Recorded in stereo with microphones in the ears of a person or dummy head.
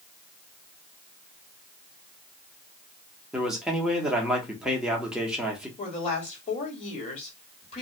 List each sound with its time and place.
3.3 s a man speaking: 5° right (ahead or behind), 0.7 m
5.8 s a woman speaking: 35° left (ahead or behind), 1.7 m